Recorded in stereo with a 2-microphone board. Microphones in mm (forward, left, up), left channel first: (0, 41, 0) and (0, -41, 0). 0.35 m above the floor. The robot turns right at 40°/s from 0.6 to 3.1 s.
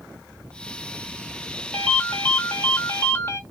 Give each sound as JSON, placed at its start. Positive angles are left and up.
{"t": 1.7, "sound": "a ringtone", "side_deg": 15, "distance_m": 0.9}